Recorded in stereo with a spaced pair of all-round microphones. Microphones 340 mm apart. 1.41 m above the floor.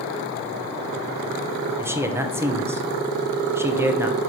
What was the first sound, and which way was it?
A man speaking, 10° right (ahead or behind).